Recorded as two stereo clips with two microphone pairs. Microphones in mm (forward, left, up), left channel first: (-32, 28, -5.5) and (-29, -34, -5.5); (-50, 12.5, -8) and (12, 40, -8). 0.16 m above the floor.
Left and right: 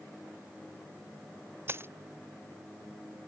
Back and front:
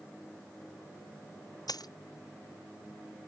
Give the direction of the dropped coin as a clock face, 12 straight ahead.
5 o'clock.